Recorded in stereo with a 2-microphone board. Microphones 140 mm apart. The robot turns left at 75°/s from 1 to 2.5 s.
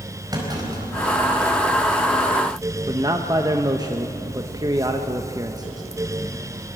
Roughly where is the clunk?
Right.